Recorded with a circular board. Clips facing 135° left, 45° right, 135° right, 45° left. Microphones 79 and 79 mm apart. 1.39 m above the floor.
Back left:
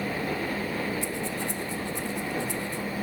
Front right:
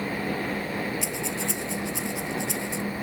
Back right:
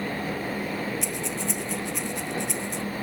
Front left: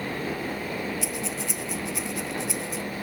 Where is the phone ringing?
No phone ringing in this recording.